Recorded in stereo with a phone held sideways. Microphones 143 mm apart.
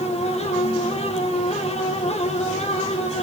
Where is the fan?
45° left (ahead or behind), 1.5 m.